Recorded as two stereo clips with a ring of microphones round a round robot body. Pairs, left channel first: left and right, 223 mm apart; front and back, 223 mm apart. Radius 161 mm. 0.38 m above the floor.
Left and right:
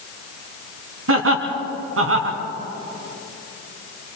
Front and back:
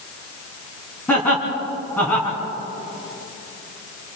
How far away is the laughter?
About 3.5 m.